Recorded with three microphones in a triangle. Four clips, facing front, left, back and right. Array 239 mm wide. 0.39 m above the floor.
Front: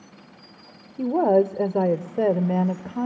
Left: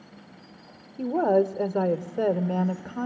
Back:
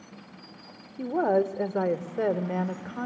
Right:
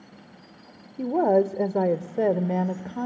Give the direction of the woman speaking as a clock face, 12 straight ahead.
1 o'clock.